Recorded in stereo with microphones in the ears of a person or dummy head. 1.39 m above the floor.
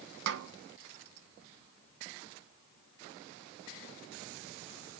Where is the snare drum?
65° right (ahead or behind), 0.9 m.